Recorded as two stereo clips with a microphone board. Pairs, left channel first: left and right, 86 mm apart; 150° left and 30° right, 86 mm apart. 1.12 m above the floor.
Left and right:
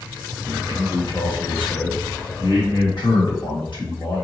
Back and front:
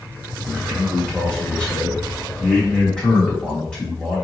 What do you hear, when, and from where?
0.5 s a man speaking: 70° left, 1.9 m